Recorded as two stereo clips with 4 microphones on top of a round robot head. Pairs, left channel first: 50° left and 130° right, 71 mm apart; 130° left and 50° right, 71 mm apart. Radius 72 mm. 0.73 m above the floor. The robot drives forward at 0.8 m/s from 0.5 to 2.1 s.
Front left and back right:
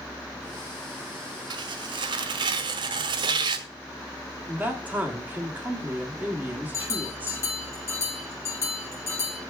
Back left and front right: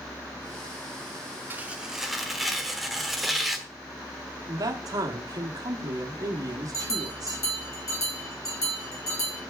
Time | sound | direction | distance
1.5 | tearing paper | 115° right | 0.7 m
4.5 | a man speaking | 70° right | 1.6 m
6.7 | a bell | 95° left | 4 m